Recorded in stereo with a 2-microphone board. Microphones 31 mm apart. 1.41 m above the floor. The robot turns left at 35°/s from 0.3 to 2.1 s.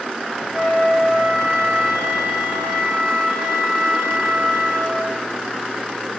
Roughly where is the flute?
Ahead.